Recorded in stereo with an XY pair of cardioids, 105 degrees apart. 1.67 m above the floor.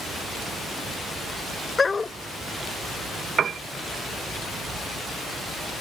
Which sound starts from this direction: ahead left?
A dog barking, at 1.8 s.